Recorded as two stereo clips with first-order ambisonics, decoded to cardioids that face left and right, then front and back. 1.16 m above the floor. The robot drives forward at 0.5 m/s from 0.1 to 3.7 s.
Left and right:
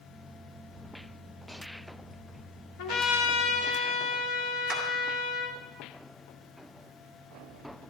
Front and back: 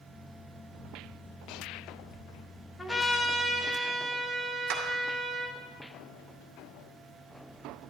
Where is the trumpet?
90° left, 1.4 m; by 5.6 s 105° left, 1.4 m.